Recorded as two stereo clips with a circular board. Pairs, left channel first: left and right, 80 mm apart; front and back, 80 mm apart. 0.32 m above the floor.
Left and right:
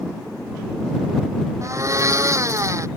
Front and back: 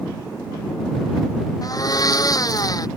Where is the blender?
40° right.